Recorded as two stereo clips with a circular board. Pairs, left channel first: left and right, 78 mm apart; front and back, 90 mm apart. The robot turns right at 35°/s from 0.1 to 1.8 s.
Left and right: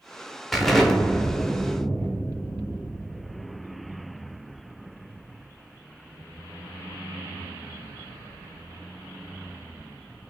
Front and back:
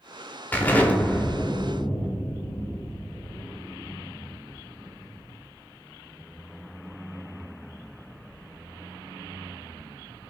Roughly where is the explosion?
Ahead.